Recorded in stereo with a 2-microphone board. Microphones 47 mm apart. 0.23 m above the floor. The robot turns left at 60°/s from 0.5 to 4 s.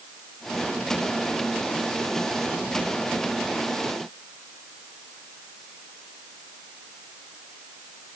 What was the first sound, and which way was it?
Only background noise.